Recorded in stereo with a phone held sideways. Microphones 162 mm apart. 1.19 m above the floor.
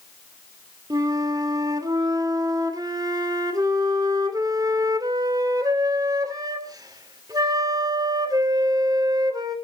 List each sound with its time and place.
0.9 s a flute: 25° right (ahead or behind), 2 m